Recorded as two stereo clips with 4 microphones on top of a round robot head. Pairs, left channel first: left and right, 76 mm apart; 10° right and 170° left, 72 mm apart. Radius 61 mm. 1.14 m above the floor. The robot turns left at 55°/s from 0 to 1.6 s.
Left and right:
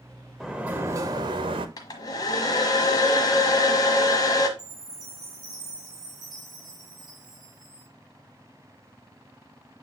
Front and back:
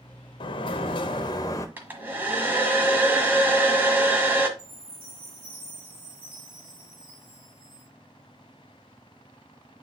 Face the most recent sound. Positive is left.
turn(degrees=-130)